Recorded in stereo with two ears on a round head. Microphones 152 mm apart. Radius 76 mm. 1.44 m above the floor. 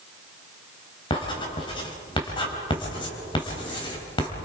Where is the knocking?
I don't hear knocking.